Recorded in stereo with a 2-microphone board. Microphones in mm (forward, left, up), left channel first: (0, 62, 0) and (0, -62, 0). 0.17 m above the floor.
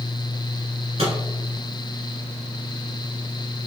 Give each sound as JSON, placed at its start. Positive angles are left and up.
{"t": 1.0, "sound": "a microwave", "side_deg": -60, "distance_m": 1.5}